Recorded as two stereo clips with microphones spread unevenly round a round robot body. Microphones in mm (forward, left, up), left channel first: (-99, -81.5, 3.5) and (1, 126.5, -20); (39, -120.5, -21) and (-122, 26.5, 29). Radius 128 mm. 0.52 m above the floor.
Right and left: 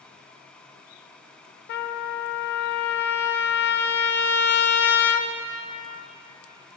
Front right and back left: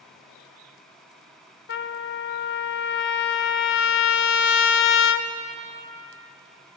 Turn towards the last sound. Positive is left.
turn(degrees=-60)